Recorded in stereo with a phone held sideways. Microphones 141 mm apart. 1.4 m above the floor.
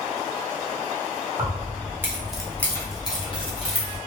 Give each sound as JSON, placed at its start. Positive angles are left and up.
{"t": 1.4, "sound": "keys jangling", "side_deg": -35, "distance_m": 0.8}